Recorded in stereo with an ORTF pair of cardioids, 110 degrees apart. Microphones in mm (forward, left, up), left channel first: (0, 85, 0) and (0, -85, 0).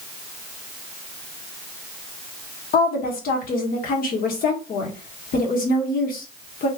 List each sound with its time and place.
2.7 s a woman speaking: 60° left, 1.4 m